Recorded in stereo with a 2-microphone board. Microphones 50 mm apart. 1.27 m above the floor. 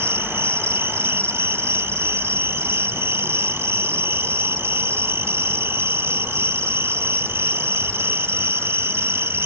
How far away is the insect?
About 1.5 m.